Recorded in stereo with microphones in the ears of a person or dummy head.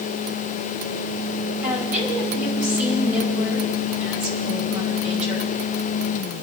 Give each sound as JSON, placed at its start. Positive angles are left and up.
{"t": 1.6, "sound": "a woman speaking", "side_deg": -5, "distance_m": 6.0}